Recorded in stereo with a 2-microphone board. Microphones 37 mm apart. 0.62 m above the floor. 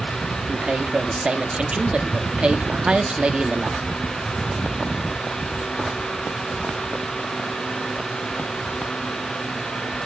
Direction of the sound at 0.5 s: 30° right (ahead or behind).